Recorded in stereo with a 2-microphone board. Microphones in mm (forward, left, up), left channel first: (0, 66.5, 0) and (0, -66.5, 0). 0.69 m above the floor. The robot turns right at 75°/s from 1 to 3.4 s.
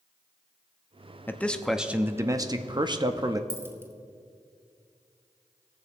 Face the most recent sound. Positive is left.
turn(degrees=-20)  # may be behind; listen again after turning